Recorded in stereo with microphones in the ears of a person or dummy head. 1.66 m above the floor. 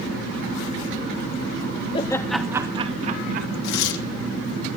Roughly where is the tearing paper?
Left.